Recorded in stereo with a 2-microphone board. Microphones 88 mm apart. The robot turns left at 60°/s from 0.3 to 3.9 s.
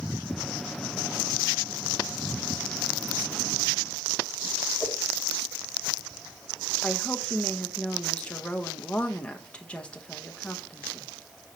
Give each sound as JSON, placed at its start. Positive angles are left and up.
{"t": 4.8, "sound": "a whoosh", "side_deg": 0, "distance_m": 1.6}
{"t": 6.8, "sound": "a woman speaking", "side_deg": 15, "distance_m": 0.9}